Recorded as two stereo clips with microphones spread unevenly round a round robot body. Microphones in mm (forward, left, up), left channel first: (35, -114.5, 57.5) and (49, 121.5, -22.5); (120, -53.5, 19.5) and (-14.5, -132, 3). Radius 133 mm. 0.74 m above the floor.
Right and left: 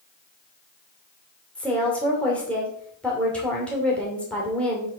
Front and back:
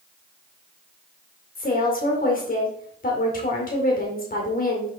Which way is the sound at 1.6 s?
5° right.